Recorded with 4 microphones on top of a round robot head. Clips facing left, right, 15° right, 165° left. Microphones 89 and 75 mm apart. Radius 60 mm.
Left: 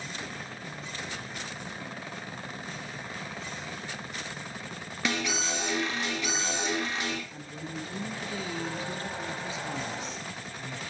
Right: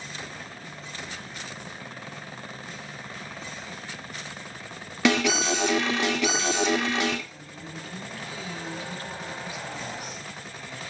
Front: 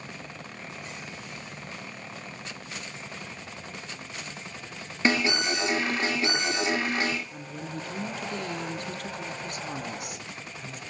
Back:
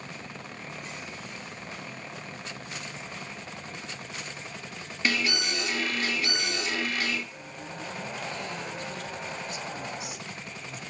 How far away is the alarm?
About 2.5 m.